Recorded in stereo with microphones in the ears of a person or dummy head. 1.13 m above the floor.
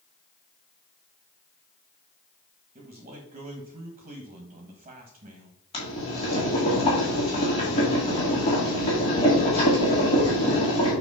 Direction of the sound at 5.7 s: 30° left (ahead or behind).